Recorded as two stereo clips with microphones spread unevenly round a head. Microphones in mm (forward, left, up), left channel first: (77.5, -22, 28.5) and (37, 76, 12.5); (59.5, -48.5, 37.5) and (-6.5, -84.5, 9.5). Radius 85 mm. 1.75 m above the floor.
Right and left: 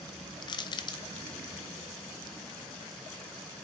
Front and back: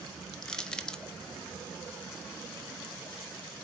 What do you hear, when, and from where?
0.4 s crushing: 40° right, 0.9 m